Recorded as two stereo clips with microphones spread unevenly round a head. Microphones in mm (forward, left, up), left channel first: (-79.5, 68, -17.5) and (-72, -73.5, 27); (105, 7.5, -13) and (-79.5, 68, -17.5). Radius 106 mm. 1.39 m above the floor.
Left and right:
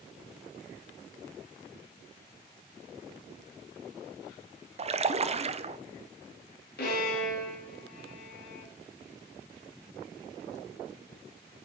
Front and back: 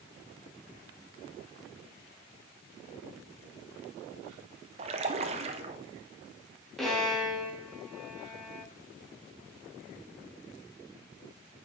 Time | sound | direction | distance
4.8 | a splash | 135° right | 0.6 m
6.8 | a violin | 70° left | 2.5 m